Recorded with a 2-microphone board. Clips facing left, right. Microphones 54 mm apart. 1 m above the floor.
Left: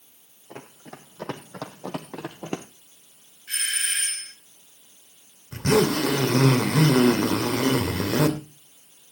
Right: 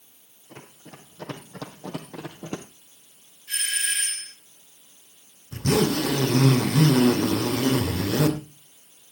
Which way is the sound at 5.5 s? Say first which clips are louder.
Left 2 dB; 70° left (ahead or behind).